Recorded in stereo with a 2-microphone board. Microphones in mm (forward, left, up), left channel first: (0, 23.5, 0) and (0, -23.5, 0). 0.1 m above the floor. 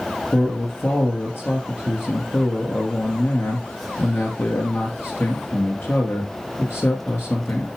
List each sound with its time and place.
0.3 s a man speaking: 55° left (ahead or behind), 1.9 m